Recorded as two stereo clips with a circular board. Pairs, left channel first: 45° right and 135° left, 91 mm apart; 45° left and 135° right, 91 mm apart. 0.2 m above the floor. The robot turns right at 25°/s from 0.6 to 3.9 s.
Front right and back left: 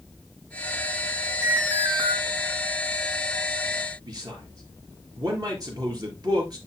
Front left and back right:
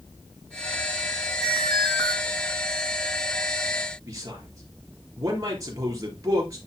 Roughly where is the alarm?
Left.